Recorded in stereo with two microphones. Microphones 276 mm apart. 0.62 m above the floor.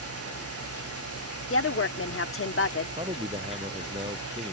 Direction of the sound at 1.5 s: 50° left (ahead or behind).